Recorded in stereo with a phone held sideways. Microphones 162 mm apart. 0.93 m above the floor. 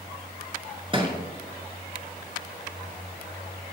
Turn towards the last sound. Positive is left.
turn(degrees=-30)  # may be behind; listen again after turning